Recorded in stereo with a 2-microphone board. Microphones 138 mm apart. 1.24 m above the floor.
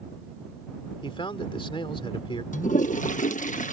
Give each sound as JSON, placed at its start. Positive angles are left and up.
{"t": 1.0, "sound": "a man speaking", "side_deg": 40}
{"t": 2.5, "sound": "a toilet flushing", "side_deg": 65}